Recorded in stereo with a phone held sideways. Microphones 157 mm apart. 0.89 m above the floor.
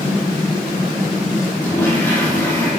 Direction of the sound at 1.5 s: 10° left (ahead or behind).